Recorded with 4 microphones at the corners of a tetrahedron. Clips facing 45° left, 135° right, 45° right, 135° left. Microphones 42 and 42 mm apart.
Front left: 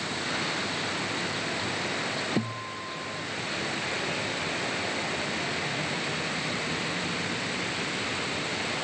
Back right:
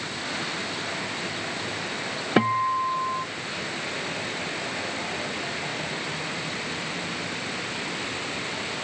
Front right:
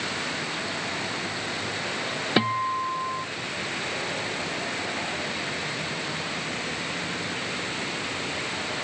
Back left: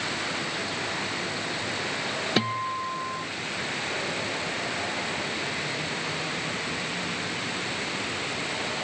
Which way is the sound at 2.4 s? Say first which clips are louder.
Back right 10 dB, front right 5 dB; 125° right.